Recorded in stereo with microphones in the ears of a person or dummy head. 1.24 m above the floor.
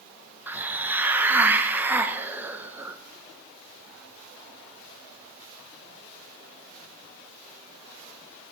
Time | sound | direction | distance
0.5 | a hiss | 10° right (ahead or behind) | 0.5 m